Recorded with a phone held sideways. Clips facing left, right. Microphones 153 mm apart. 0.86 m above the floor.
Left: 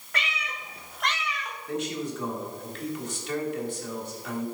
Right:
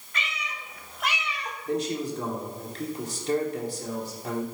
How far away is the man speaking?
About 2 m.